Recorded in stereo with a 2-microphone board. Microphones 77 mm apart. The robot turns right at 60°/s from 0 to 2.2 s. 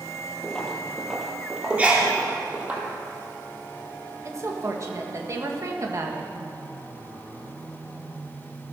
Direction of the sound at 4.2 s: 40° right (ahead or behind).